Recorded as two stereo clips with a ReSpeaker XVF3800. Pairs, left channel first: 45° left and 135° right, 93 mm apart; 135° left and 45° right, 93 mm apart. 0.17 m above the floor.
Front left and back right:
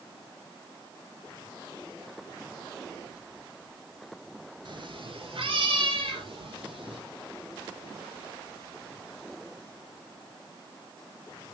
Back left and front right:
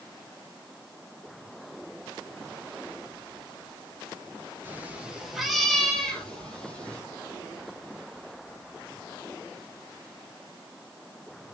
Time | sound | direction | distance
4.7 | a cat meowing | 110° right | 1.2 m